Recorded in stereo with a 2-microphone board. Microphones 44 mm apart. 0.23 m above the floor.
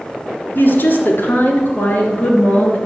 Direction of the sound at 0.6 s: 55° left (ahead or behind).